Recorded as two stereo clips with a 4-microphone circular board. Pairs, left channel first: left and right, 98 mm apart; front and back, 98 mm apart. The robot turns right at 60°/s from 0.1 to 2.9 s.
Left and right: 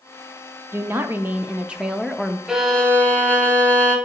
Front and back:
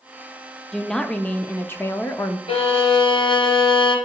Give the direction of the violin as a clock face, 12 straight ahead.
12 o'clock.